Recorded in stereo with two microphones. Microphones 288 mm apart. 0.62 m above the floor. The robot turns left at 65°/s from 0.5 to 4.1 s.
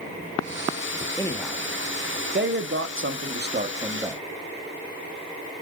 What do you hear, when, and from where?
1.2 s a man speaking: 15° left (ahead or behind), 0.9 m; by 4.2 s 5° right (ahead or behind), 0.9 m